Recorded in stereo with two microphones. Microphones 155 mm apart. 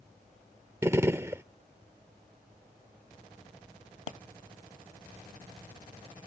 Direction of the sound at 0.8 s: 15° right (ahead or behind).